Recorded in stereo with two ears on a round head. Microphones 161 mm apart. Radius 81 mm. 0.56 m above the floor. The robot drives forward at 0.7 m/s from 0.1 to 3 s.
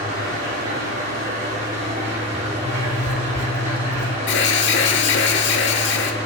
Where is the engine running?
55° right (ahead or behind), 7 m; by 6.2 s 40° right (ahead or behind), 8.5 m.